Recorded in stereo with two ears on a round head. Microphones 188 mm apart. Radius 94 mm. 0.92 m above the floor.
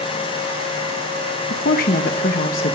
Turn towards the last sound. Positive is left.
turn(degrees=45)  # may be behind; listen again after turning